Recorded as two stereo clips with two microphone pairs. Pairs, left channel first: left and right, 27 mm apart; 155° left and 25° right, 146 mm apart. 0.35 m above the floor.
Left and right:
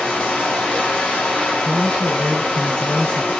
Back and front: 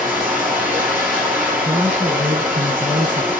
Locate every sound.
0.0 s running water: 55° left, 5 m
1.6 s a man speaking: 45° left, 3.5 m